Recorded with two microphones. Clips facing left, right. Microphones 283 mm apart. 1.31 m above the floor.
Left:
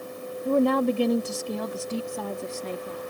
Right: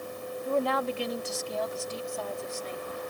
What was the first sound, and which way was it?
A woman speaking, 50° left (ahead or behind).